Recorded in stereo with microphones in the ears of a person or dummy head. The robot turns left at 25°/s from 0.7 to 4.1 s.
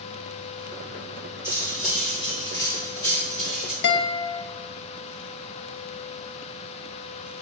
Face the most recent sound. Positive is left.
turn(degrees=60)  # may be behind; listen again after turning